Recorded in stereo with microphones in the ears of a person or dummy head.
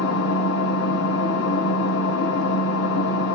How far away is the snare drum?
No snare drum in this recording.